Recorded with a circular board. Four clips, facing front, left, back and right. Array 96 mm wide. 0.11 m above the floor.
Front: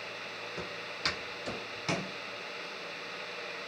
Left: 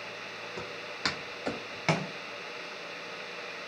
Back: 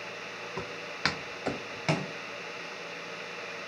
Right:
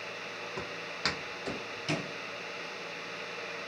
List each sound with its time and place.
0.6 s footsteps: 170° right, 1.6 m; by 2.1 s 100° left, 0.9 m